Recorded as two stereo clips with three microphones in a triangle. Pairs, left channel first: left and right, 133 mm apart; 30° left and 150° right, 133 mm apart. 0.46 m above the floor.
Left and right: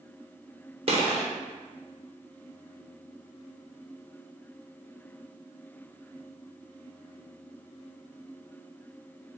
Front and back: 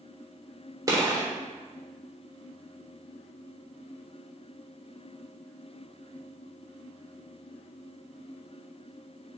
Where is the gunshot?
95° right, 0.9 m.